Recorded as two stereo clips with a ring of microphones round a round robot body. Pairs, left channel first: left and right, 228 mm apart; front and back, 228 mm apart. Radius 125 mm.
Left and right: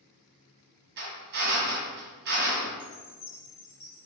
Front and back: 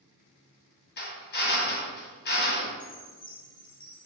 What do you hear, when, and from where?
1.0 s a drill: 40° right, 1.9 m
2.8 s a chime: 70° left, 3 m